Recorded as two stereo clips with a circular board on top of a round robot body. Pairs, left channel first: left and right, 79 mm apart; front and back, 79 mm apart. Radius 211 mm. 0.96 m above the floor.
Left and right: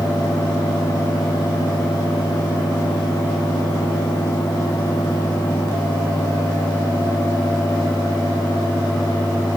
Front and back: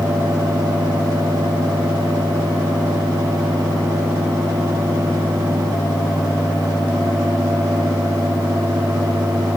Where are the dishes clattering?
I don't hear dishes clattering.